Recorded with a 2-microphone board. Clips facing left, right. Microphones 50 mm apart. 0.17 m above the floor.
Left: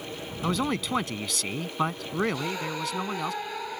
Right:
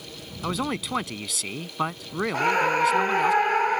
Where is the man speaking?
Centre (ahead or behind).